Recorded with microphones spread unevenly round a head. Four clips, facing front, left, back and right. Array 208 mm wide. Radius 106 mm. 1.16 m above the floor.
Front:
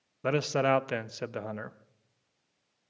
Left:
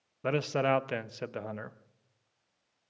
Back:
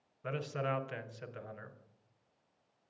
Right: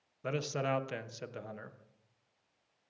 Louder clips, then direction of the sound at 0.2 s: Left 6 dB, front 10 dB; 25° left.